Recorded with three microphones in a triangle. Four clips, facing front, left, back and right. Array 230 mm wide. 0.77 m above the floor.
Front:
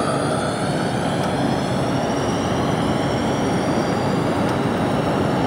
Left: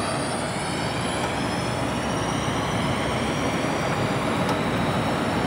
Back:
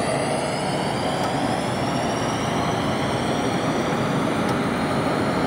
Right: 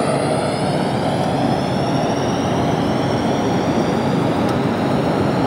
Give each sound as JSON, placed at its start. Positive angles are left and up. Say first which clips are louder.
{"t": 0.0, "sound": "a drone", "louder": "right 9 dB, front 2 dB", "azimuth_deg": -80}